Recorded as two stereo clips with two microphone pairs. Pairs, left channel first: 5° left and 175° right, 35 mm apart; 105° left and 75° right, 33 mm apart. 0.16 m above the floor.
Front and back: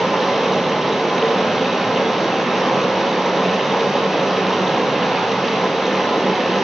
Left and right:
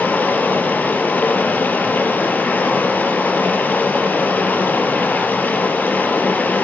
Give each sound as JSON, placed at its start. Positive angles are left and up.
{"t": 0.0, "sound": "running water", "azimuth_deg": 100, "distance_m": 3.0}